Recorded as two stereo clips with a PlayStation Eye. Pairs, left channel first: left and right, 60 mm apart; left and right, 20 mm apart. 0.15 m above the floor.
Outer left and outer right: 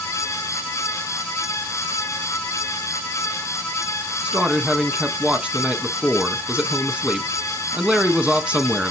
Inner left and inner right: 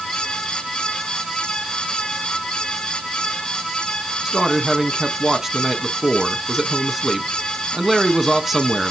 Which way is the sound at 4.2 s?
20° right (ahead or behind).